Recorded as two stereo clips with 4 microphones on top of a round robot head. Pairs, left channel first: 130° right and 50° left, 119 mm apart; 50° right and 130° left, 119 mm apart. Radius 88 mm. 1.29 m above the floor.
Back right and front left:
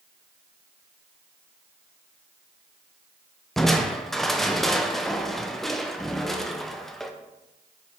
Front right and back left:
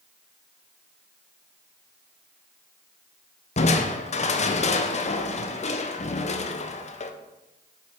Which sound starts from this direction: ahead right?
Crushing, at 3.6 s.